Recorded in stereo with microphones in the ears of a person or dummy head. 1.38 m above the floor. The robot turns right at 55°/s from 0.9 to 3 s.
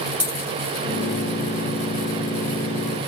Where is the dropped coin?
5° right (ahead or behind), 1.1 m.